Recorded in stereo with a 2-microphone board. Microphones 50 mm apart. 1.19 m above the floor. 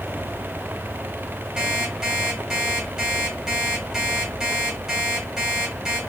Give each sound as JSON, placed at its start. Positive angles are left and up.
{"t": 1.6, "sound": "an alarm clock", "side_deg": -10, "distance_m": 3.5}